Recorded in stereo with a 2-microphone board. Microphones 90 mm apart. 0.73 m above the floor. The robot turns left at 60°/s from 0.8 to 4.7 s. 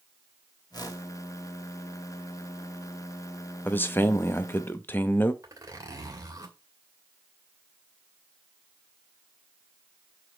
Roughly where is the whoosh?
Left.